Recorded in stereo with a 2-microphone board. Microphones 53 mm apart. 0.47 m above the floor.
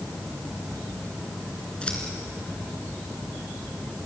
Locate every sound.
1.8 s scissors: 25° left (ahead or behind), 3 m